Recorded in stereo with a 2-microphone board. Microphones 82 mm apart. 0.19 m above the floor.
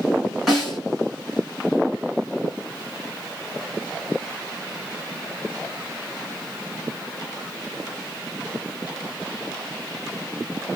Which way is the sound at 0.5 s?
Centre (ahead or behind).